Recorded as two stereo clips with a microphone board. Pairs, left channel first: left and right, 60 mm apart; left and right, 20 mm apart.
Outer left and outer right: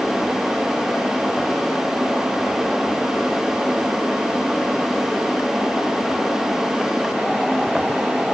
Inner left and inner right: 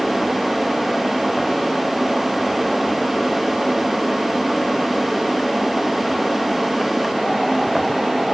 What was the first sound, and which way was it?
Only background noise.